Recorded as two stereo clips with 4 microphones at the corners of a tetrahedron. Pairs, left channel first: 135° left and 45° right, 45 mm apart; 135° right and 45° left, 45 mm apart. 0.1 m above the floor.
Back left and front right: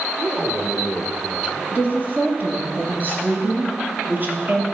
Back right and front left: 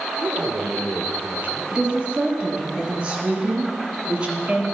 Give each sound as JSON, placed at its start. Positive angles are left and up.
{"t": 0.2, "sound": "a man speaking", "azimuth_deg": 15, "distance_m": 2.0}
{"t": 1.7, "sound": "a woman speaking", "azimuth_deg": -15, "distance_m": 2.5}